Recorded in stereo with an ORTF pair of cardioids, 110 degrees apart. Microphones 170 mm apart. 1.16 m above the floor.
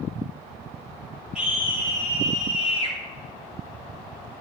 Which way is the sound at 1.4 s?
5° right.